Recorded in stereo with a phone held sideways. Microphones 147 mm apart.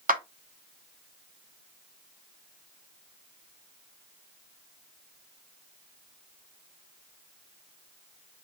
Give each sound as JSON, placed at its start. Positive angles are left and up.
{"t": 0.1, "sound": "a clap", "side_deg": -80, "distance_m": 0.7}